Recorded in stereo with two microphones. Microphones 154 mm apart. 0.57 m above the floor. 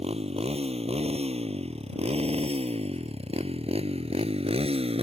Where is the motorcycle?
40° right (ahead or behind).